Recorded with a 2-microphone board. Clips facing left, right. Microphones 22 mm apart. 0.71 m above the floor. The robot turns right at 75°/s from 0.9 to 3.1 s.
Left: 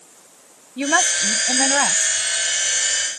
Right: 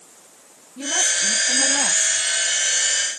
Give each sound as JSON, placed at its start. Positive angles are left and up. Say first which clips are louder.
{"t": 0.8, "sound": "a woman speaking", "louder": "left 3 dB", "azimuth_deg": 60}